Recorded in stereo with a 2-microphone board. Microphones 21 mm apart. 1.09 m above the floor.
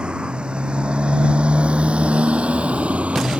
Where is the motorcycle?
45° right (ahead or behind); by 3.4 s 90° right.